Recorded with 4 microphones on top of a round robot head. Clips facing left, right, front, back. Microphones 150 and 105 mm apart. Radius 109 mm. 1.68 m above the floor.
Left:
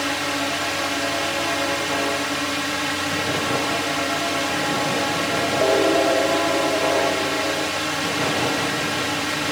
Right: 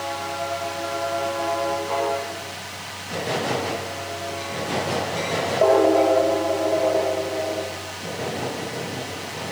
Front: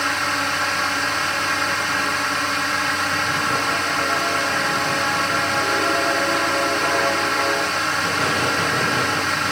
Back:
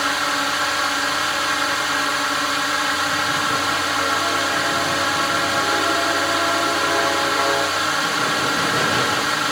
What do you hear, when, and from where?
0.0 s a drone: 100° left